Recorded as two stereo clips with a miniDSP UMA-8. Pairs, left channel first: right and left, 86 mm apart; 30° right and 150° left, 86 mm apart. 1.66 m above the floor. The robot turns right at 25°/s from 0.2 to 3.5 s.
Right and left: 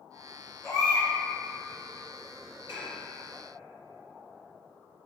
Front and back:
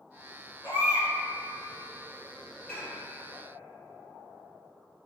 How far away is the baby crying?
About 0.9 m.